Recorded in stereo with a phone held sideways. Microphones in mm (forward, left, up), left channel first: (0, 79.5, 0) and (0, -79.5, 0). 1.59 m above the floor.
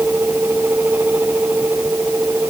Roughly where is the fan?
Centre.